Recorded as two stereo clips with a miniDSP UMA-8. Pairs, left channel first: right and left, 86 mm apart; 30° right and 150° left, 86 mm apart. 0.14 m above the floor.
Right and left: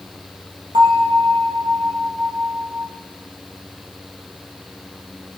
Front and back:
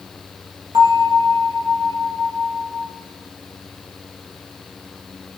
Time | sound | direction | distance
0.7 | a bell | 110° left | 2.5 m